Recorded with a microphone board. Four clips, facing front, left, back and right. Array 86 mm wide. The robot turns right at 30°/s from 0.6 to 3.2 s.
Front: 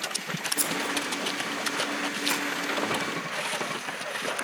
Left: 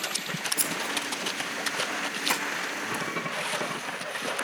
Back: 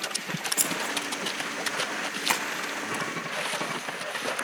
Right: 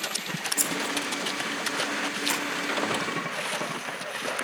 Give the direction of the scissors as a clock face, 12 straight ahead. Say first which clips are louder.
Right 4 dB, front 2 dB; 7 o'clock.